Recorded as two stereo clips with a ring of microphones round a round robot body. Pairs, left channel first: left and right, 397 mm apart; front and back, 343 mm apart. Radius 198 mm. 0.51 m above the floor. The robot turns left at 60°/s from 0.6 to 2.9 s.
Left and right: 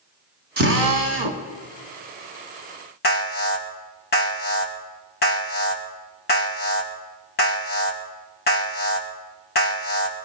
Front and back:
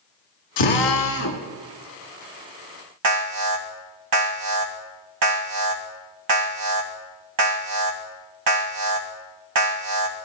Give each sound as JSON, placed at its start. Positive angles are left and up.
{"t": 0.6, "sound": "a drill", "azimuth_deg": -25, "distance_m": 2.0}
{"t": 3.0, "sound": "an alarm", "azimuth_deg": 155, "distance_m": 2.5}